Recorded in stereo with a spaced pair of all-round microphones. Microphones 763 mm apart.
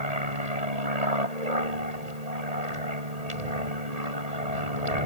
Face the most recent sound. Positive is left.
turn(degrees=-55)  # may be behind; listen again after turning